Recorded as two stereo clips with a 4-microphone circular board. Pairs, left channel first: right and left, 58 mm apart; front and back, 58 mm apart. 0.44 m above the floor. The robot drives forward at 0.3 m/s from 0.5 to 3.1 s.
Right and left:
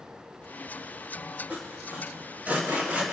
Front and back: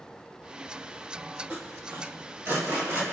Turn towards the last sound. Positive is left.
turn(degrees=150)